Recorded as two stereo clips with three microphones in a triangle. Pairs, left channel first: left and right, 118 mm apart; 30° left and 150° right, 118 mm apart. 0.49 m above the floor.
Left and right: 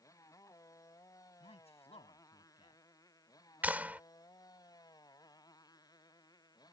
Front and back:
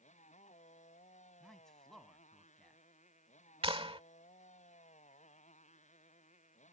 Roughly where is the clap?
Behind.